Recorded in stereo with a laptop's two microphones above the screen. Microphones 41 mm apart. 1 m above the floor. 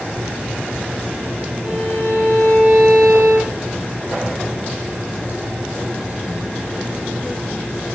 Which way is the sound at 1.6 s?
60° right (ahead or behind).